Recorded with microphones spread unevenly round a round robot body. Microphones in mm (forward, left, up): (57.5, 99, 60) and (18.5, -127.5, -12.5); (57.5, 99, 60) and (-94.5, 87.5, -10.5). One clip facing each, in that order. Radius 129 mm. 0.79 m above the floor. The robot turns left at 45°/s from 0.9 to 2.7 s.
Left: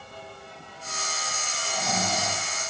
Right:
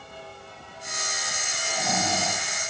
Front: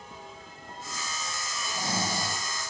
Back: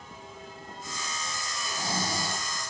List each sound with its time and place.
1.6 s snoring: 15° right, 1.4 m; by 2.4 s 50° right, 1.4 m